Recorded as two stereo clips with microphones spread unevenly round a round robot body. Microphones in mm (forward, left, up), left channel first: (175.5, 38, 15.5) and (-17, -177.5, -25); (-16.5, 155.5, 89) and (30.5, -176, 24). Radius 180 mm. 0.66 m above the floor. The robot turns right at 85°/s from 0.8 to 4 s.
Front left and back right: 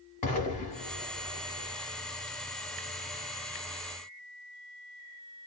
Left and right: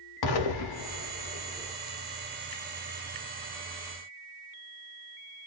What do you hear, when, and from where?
0.2 s an explosion: 115° left, 0.7 m; by 1.7 s 165° right, 0.7 m